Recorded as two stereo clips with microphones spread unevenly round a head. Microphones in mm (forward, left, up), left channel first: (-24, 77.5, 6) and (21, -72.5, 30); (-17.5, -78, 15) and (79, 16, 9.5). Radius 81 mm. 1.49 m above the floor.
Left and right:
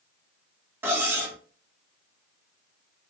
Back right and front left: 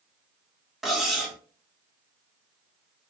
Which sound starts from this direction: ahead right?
Cutlery clinking, at 0.8 s.